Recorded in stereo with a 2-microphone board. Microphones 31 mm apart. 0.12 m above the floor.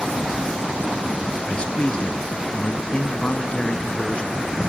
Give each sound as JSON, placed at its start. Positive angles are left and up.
{"t": 1.4, "sound": "a man speaking", "side_deg": 35, "distance_m": 1.5}